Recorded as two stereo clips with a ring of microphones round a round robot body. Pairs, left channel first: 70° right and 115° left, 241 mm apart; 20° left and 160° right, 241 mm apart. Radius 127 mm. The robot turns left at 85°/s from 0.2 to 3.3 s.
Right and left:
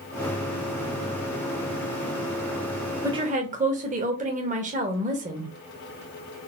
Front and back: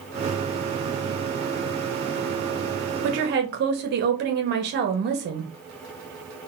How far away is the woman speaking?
About 0.7 m.